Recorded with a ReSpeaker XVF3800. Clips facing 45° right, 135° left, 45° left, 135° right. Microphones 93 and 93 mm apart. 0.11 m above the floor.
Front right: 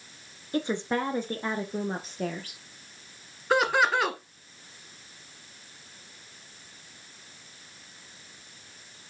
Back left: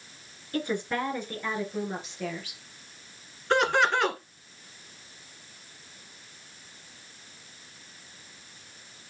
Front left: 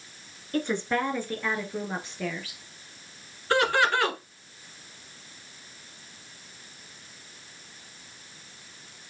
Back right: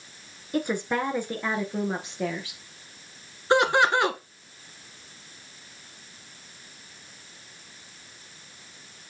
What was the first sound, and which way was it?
A woman speaking, 70° right.